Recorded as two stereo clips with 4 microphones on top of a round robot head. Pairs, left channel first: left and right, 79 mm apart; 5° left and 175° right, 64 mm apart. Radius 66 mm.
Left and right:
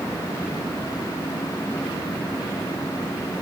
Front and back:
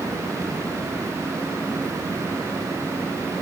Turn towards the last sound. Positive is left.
No sound to turn to.